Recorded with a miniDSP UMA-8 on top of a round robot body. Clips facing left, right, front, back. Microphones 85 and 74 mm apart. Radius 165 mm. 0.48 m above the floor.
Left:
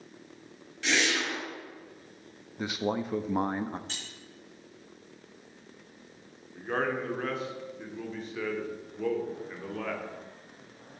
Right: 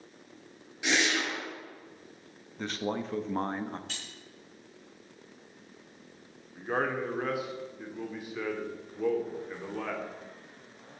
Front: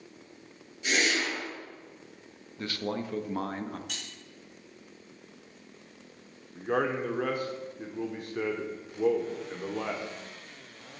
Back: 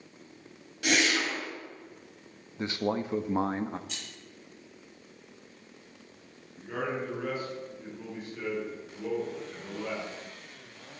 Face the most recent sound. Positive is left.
turn(degrees=-10)